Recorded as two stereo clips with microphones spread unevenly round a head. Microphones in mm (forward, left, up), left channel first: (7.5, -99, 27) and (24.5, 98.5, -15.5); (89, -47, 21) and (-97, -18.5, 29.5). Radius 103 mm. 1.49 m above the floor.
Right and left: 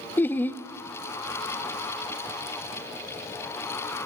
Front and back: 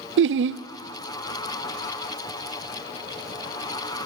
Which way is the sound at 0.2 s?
Straight behind.